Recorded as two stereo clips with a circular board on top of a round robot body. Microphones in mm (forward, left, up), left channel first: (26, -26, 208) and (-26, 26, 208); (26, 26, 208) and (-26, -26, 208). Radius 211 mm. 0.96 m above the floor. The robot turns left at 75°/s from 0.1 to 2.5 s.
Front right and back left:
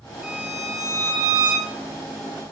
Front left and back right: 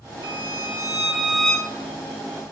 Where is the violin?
140° right, 1.2 m; by 1.7 s 110° left, 1.2 m.